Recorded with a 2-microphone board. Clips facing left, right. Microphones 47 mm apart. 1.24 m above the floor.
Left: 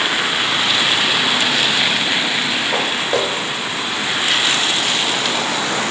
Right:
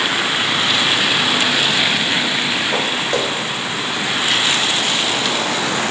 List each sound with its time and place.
2.7 s footsteps: 5° left (ahead or behind), 5 m; by 5.8 s 30° left (ahead or behind), 8.5 m